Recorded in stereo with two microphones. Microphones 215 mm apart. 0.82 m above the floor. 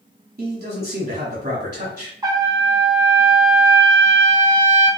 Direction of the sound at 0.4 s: 40° right (ahead or behind).